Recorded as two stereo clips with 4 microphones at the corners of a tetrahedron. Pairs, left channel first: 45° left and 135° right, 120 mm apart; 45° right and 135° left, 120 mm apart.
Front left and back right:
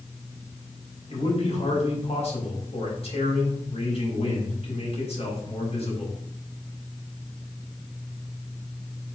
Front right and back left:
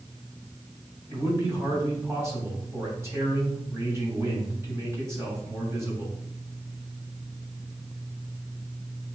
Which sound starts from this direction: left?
A man speaking, at 1.1 s.